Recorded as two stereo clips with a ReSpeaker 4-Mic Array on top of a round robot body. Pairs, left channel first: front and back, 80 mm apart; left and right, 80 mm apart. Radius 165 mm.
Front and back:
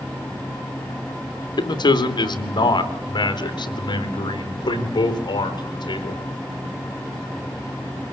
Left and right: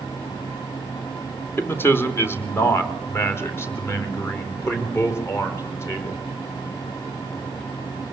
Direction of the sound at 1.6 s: 30° left.